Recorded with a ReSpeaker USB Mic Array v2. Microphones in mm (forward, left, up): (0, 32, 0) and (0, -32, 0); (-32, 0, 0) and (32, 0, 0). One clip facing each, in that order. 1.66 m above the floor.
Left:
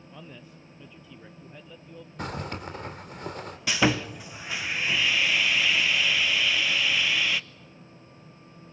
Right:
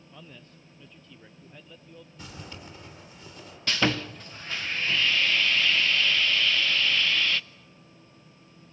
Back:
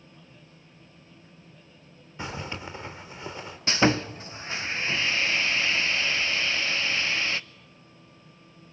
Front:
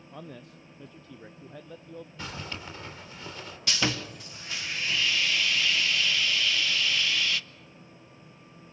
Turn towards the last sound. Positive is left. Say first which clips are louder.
# left 2 dB, back 7 dB
turn(degrees=160)